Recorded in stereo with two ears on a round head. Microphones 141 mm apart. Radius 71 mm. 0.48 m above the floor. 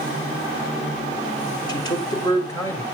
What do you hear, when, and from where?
1.7 s a man speaking: 25° left (ahead or behind), 2 m; by 2.8 s 20° left (ahead or behind), 2.5 m